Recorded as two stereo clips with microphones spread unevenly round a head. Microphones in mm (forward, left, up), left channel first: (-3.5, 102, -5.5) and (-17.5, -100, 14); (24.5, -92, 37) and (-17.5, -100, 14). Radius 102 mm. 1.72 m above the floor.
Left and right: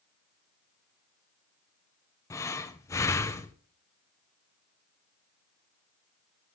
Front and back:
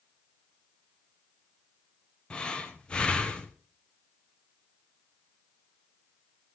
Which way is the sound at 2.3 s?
10° left.